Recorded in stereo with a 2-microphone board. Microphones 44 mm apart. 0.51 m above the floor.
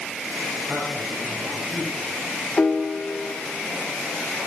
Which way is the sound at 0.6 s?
15° right (ahead or behind).